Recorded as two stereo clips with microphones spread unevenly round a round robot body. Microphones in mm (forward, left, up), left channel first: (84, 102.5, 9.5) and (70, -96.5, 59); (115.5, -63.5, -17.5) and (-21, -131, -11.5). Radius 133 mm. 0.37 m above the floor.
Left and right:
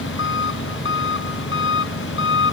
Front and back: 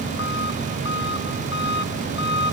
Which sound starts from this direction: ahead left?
An engine running, at 0.0 s.